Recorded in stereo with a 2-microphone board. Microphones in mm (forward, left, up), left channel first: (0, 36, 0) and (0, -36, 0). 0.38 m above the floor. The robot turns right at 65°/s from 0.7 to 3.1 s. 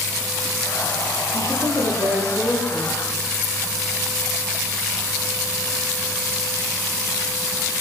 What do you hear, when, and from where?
1.3 s a woman speaking: 105° right, 10 m; by 3.0 s straight ahead, 10 m